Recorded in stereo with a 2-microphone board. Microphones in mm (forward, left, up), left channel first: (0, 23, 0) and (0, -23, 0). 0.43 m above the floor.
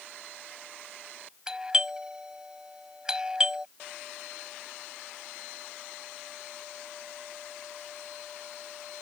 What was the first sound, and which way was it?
A doorbell, 15° right (ahead or behind).